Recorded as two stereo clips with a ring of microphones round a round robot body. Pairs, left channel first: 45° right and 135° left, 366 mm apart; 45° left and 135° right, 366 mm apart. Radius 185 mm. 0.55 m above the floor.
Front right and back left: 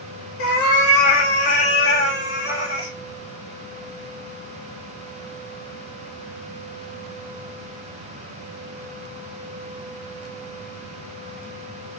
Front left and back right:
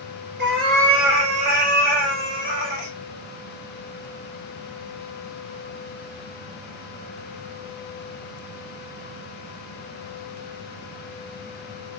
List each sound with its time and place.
0.4 s a cat meowing: 75° right, 1.0 m; by 2.9 s 150° right, 1.2 m